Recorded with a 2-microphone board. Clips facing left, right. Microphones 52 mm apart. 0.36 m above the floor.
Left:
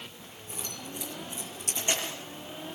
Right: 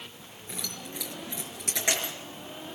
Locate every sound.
0.5 s keys jangling: 80° right, 4.5 m